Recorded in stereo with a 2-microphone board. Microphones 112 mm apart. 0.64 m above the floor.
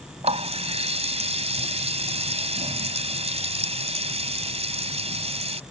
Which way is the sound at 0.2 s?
60° right (ahead or behind).